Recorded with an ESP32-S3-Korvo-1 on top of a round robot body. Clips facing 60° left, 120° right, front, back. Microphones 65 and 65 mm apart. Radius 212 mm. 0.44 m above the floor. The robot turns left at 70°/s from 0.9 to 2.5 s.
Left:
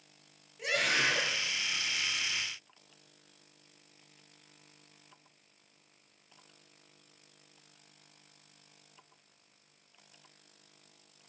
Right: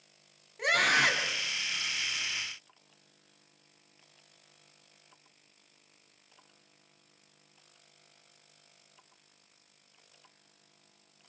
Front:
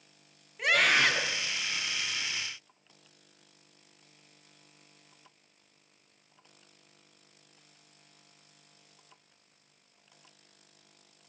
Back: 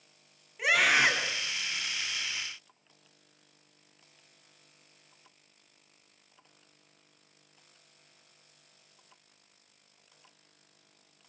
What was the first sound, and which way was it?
A scream, 95° right.